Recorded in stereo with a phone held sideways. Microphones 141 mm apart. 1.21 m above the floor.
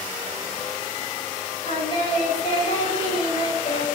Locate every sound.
1.6 s singing: 40° left (ahead or behind), 5 m